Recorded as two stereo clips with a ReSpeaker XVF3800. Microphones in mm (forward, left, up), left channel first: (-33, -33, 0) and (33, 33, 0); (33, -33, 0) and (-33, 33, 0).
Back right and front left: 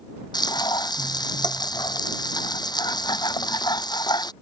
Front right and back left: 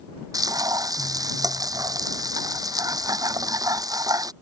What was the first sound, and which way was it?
Frying, 175° right.